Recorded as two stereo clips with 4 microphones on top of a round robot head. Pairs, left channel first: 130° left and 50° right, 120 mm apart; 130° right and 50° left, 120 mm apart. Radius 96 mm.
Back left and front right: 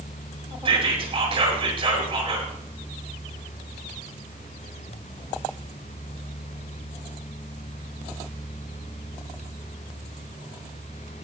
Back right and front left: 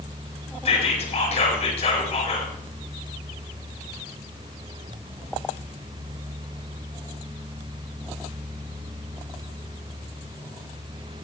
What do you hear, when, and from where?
0.7 s whispering: 95° right, 4.5 m